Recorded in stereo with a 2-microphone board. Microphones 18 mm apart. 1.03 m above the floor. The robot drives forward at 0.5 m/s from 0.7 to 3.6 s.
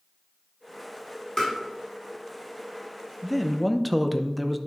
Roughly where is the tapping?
Left.